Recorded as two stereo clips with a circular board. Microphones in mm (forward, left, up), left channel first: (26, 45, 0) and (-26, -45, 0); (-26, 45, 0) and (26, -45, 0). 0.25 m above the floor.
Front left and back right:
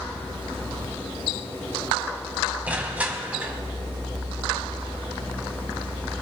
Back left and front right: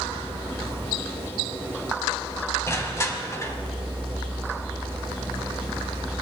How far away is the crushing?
About 1.4 m.